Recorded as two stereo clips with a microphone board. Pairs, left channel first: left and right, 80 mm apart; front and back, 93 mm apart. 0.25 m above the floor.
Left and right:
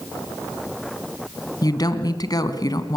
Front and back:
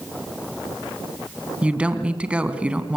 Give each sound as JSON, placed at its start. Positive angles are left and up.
{"t": 1.6, "sound": "a woman speaking", "azimuth_deg": 105, "distance_m": 2.0}